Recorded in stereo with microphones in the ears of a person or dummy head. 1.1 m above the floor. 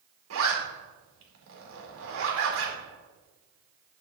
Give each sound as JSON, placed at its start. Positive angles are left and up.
{"t": 0.3, "sound": "a zipper", "side_deg": -75, "distance_m": 2.5}